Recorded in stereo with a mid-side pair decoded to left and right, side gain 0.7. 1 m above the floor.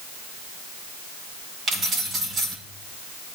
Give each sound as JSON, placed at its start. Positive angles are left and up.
{"t": 1.7, "sound": "keys jangling", "azimuth_deg": -35, "distance_m": 5.0}